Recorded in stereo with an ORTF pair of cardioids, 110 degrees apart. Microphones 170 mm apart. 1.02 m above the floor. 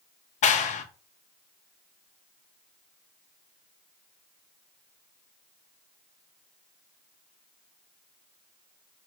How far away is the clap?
About 0.5 m.